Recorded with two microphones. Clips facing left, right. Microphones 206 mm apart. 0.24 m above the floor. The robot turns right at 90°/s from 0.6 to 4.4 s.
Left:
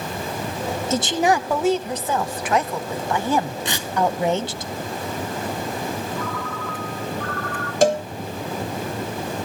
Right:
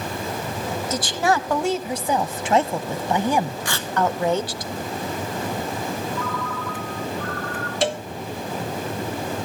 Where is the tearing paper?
25° left (ahead or behind), 0.9 m; by 3.9 s 5° left (ahead or behind), 0.9 m.